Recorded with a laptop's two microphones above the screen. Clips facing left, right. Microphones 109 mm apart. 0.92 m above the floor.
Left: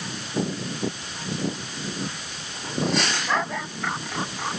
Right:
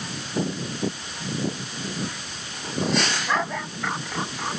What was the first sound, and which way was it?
Only background noise.